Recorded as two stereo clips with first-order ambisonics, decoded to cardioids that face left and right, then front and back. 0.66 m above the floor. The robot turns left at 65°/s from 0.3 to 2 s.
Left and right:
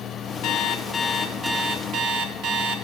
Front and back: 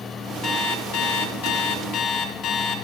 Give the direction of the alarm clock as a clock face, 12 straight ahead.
10 o'clock.